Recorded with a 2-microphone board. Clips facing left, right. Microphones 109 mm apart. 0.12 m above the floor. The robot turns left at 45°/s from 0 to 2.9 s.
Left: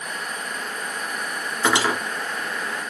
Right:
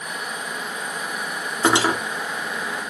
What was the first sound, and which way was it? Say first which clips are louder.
Cutlery clinking: right 2 dB; 25° right (ahead or behind).